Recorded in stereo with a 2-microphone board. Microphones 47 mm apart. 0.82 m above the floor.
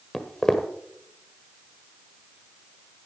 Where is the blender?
I don't hear a blender.